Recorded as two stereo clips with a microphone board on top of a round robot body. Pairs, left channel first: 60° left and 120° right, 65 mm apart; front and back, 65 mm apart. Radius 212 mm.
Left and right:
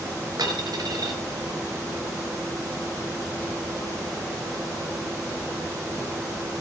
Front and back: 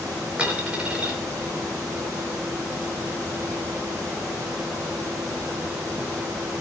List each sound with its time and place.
0.4 s a dropped coin: 105° right, 4.5 m